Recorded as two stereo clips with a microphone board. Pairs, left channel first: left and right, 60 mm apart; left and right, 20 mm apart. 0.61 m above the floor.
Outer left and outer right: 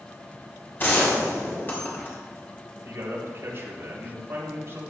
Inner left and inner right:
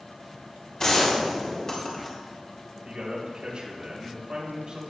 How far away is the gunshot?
About 4.5 m.